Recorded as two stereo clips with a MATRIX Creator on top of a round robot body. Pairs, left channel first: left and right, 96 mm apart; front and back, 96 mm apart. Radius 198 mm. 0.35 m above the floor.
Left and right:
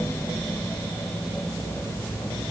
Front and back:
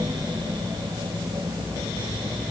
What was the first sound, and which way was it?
Only background noise.